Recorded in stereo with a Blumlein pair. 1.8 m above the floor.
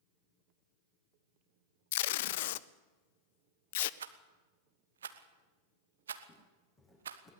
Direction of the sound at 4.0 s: 65° right.